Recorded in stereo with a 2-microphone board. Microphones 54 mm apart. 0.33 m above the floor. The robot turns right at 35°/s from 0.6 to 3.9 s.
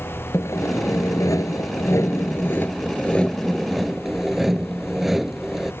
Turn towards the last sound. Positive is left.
turn(degrees=-175)